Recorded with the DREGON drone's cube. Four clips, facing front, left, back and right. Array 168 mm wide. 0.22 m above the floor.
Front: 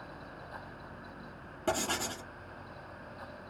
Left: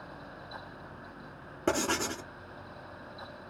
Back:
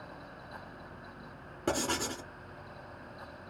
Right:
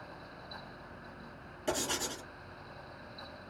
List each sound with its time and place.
1.7 s writing: 100° left, 1.0 m